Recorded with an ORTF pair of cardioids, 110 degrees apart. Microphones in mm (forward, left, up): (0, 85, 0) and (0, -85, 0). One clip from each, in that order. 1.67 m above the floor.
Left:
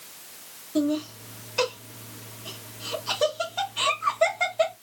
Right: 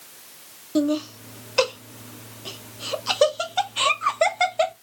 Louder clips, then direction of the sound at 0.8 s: Right 3 dB; 45° right.